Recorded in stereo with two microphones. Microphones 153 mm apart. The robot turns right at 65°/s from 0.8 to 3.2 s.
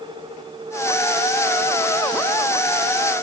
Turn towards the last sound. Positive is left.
No sound to turn to.